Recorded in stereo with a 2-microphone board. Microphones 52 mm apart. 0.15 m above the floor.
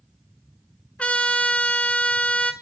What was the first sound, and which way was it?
A trumpet, 25° left (ahead or behind).